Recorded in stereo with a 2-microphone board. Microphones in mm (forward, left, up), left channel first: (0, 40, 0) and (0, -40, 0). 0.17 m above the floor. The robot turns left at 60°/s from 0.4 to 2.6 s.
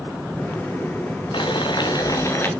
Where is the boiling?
95° left, 2.5 m; by 2.5 s 25° left, 2.5 m.